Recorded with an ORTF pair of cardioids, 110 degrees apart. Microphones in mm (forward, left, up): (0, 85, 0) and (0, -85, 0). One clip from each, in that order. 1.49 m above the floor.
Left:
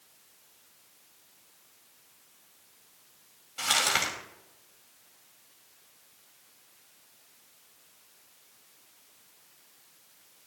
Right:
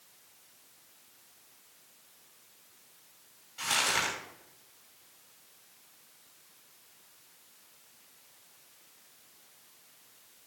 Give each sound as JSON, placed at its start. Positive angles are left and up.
{"t": 3.6, "sound": "crumpling", "azimuth_deg": 50, "distance_m": 5.5}